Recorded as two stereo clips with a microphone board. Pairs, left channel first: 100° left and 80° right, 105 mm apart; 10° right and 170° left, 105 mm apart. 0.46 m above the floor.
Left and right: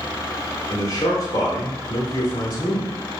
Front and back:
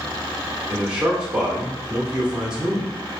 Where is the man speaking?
95° left, 0.9 m.